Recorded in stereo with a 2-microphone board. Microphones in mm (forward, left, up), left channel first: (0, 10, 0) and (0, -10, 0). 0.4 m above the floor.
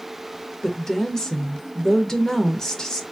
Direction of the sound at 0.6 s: 30° left (ahead or behind).